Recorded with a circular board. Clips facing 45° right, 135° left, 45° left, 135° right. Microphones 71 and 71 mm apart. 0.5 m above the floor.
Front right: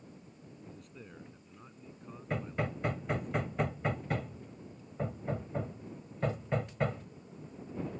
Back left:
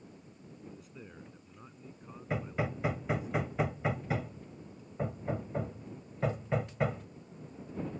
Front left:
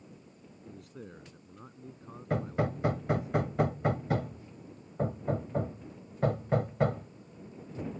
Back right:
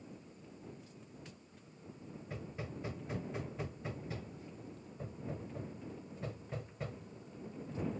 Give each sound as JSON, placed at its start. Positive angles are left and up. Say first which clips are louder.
{"t": 0.7, "sound": "a man speaking", "louder": "back left 1 dB, front left 11 dB", "azimuth_deg": 50}
{"t": 2.3, "sound": "hammering", "louder": "back left 1 dB, front left 16 dB", "azimuth_deg": 50}